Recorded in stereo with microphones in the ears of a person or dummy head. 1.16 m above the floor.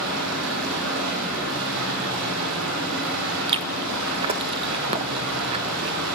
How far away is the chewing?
About 0.7 m.